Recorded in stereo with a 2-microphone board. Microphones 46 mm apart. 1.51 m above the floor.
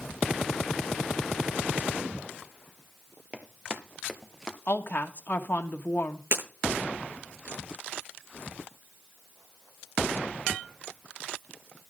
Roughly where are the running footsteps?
Right.